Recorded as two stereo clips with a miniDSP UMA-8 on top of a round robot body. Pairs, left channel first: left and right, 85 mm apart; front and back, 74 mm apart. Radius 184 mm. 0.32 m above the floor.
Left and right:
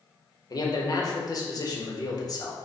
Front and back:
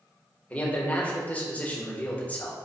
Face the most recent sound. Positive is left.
turn(degrees=65)